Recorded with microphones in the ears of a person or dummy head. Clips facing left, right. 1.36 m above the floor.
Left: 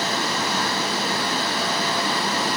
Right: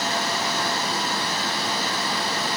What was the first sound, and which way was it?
Only background noise.